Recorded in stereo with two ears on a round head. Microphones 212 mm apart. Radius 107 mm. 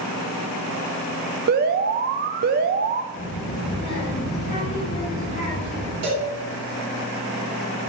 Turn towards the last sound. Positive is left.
turn(degrees=-75)  # may be behind; listen again after turning